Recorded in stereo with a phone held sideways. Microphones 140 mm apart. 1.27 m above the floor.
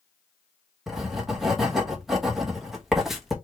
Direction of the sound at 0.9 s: Centre (ahead or behind).